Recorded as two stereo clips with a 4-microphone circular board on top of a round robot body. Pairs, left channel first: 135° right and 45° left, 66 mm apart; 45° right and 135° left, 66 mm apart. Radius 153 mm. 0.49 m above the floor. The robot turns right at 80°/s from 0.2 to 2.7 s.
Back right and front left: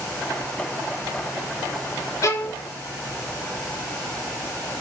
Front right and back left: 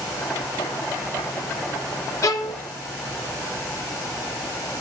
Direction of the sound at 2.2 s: 85° right.